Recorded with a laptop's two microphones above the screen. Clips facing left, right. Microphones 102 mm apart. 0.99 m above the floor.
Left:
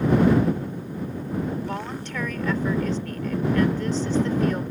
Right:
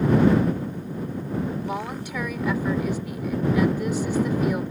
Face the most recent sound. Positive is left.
turn(degrees=-10)  # may be behind; listen again after turning